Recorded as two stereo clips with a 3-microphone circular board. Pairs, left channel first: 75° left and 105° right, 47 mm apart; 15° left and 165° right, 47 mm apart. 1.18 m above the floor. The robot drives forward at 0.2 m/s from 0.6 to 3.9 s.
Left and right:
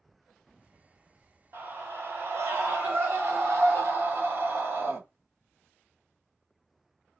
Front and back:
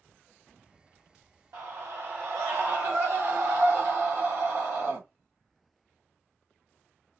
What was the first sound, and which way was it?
A scream, 145° right.